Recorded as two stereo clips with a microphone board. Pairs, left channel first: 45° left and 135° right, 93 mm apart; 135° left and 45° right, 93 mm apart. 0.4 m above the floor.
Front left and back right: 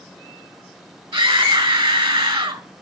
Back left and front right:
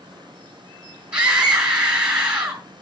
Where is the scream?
125° right, 3 m.